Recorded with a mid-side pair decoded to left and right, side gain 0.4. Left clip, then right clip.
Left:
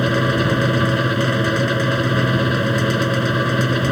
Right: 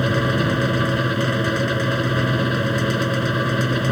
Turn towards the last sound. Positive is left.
turn(degrees=15)